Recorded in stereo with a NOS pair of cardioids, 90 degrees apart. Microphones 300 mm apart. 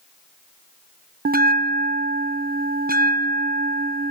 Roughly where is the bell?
Ahead right.